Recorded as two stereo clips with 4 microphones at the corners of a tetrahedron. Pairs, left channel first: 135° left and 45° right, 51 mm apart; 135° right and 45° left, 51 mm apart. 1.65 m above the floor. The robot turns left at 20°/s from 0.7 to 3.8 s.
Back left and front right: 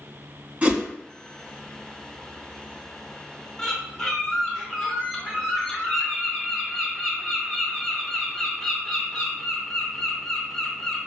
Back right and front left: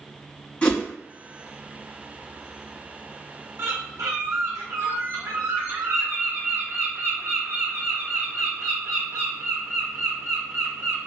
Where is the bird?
60° left, 0.7 m; by 11.0 s 55° left, 0.7 m.